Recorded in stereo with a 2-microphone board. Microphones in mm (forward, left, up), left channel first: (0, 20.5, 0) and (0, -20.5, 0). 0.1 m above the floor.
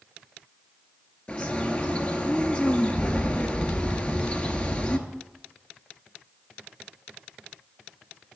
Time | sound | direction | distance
1.3 | a bird | 30° left (ahead or behind) | 0.7 m